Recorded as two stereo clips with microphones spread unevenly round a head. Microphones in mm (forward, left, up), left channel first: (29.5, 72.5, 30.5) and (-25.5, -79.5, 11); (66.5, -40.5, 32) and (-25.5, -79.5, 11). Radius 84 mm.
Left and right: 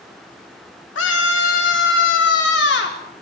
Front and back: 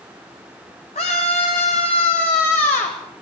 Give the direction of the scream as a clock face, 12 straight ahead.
10 o'clock.